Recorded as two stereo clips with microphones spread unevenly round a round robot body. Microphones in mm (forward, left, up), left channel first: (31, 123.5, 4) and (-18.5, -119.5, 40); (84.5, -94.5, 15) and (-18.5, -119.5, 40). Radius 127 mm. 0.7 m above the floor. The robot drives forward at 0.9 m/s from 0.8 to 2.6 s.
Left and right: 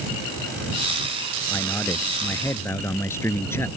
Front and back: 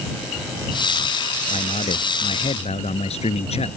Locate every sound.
1.5 s a man speaking: 5° right